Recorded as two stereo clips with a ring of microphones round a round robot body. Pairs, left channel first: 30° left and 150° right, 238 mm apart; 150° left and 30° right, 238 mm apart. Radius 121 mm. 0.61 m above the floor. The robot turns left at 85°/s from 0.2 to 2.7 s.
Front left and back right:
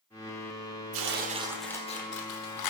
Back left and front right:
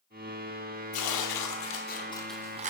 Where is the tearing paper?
Straight behind, 0.9 m; by 2.7 s 30° left, 0.9 m.